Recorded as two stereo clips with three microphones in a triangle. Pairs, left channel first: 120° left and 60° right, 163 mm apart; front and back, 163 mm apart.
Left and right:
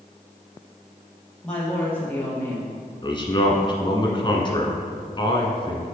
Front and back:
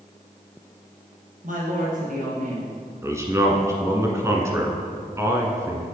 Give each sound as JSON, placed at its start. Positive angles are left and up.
{"t": 1.4, "sound": "a woman speaking", "azimuth_deg": -155, "distance_m": 3.5}
{"t": 3.0, "sound": "a man speaking", "azimuth_deg": 130, "distance_m": 1.3}